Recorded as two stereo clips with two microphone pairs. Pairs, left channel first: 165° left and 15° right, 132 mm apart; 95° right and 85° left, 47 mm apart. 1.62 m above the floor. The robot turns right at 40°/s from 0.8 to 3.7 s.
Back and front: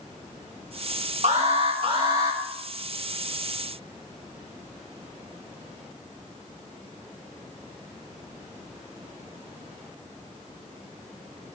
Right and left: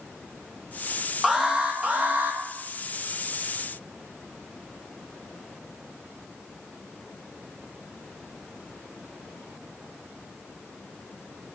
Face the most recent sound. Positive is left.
turn(degrees=105)